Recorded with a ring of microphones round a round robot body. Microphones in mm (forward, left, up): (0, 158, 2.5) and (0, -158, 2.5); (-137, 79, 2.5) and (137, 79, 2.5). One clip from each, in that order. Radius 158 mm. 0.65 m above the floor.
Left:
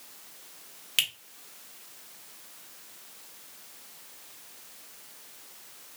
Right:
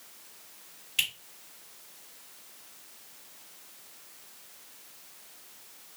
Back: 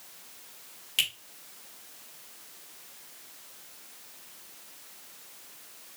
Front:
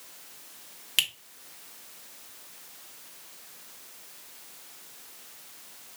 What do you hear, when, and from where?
1.0 s a finger snap: 45° left, 1.9 m